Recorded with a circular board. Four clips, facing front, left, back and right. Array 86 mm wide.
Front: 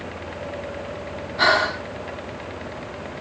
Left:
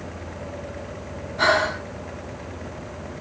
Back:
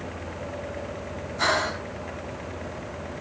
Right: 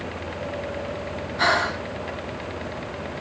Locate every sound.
1.4 s breathing: straight ahead, 0.7 m